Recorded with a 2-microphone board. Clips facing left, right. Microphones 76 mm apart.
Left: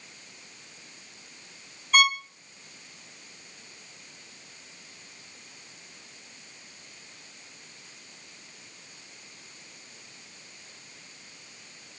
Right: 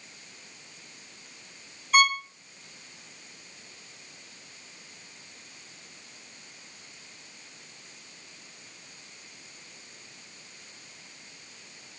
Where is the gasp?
I don't hear a gasp.